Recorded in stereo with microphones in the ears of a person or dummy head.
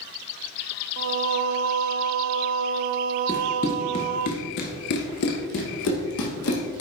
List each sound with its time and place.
1.0 s singing: 70° right (ahead or behind), 0.5 m
3.3 s running footsteps: 10° left (ahead or behind), 1.2 m; by 6.8 s 65° left (ahead or behind), 2.5 m